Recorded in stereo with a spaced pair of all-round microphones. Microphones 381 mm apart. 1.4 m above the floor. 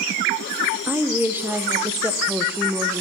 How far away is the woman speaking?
About 0.5 m.